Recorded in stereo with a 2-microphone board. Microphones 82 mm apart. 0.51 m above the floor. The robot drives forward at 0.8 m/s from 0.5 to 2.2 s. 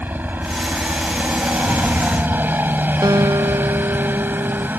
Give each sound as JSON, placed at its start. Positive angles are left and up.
{"t": 0.0, "sound": "a helicopter", "side_deg": -25}
{"t": 1.6, "sound": "a rattle", "side_deg": 45}
{"t": 3.0, "sound": "a guitar", "side_deg": -55}